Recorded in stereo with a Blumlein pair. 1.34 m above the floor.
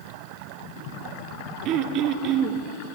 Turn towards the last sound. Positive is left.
turn(degrees=-35)